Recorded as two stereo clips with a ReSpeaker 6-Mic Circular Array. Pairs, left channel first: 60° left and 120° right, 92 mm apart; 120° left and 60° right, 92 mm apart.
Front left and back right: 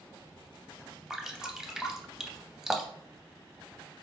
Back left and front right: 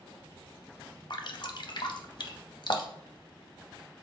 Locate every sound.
1.1 s dripping: 155° left, 0.6 m